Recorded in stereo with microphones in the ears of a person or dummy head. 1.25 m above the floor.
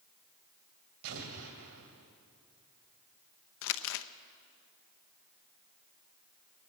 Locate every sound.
1.0 s an explosion: 70° right (ahead or behind), 2.5 m
3.6 s crumpling: 75° left (ahead or behind), 0.7 m